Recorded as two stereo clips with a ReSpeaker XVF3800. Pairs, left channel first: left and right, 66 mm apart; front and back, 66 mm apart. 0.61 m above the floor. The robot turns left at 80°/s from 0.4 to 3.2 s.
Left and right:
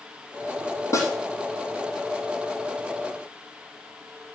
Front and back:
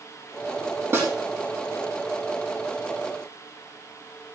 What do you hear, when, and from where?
0.9 s a snare drum: 130° left, 3.5 m; by 1.1 s 120° left, 3.5 m